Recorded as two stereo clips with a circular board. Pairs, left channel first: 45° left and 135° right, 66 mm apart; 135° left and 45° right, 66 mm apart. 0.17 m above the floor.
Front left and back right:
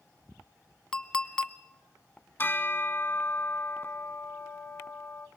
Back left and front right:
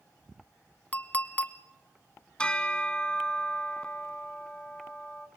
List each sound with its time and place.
0.9 s a clink: 110° left, 0.6 m
2.4 s a bell: 70° left, 0.9 m